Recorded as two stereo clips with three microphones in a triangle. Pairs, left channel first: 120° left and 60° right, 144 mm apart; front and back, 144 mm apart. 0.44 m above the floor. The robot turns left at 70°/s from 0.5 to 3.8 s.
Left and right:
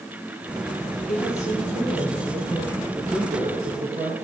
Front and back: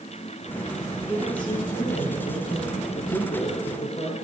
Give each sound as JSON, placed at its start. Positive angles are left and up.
{"t": 1.1, "sound": "a woman speaking", "azimuth_deg": 105, "distance_m": 9.5}
{"t": 2.9, "sound": "a man speaking", "azimuth_deg": 0, "distance_m": 5.5}